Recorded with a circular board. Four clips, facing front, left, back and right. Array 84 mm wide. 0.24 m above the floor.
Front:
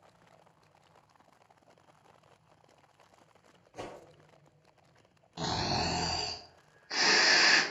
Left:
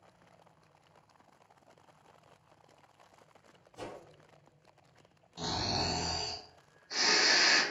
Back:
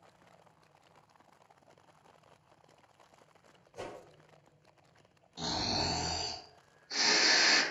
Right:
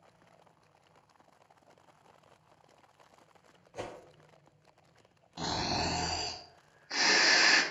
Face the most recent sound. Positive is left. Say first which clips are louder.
# right 2 dB, front 3 dB
turn(degrees=-30)